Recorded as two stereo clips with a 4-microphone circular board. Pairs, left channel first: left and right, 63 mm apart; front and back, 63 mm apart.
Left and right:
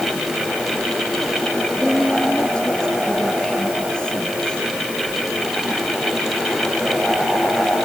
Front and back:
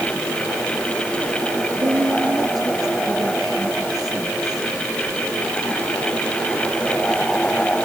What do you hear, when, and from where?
1.8 s a woman speaking: 165° left